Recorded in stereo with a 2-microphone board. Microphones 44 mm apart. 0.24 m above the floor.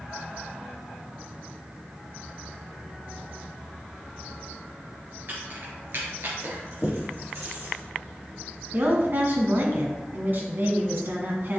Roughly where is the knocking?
Left.